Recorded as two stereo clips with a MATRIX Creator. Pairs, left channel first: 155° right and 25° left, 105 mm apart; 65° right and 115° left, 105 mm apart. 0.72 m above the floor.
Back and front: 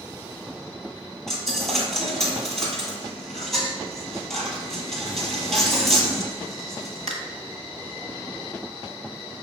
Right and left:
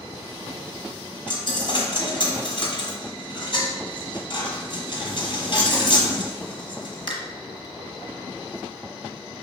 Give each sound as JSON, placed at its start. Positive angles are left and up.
{"t": 1.3, "sound": "a dropped coin", "azimuth_deg": -70, "distance_m": 1.0}